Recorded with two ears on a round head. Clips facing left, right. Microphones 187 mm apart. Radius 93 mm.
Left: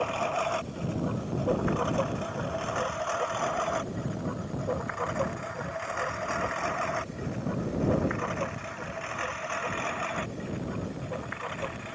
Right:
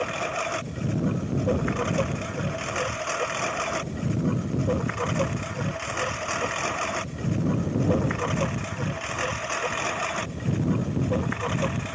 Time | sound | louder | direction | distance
0.0 | a lawn mower | even | 25° right (ahead or behind) | ?